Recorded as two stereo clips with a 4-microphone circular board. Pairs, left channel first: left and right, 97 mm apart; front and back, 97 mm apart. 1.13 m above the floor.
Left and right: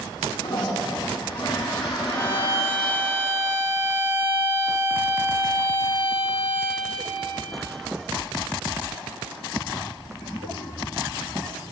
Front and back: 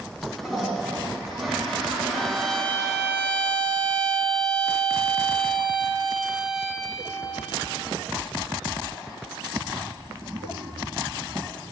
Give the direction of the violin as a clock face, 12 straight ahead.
9 o'clock.